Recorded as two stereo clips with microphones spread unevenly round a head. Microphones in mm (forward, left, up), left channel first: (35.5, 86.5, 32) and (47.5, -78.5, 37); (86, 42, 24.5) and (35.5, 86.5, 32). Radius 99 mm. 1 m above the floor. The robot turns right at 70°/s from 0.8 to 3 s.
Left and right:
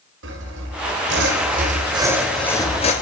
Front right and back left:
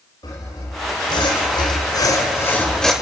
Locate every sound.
0.2 s sawing: 100° right, 3.5 m; by 2.9 s 45° left, 3.5 m